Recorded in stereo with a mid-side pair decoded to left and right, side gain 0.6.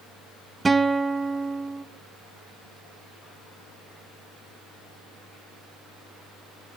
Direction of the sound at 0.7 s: 15° right.